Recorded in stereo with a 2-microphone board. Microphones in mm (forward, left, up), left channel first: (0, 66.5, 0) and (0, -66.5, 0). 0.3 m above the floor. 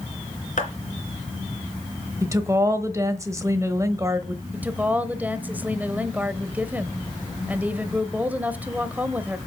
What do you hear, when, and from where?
0.6 s a clap: 70° left (ahead or behind), 3.5 m
2.2 s a woman speaking: 25° right (ahead or behind), 1.2 m
4.5 s a woman speaking: 10° right (ahead or behind), 1.0 m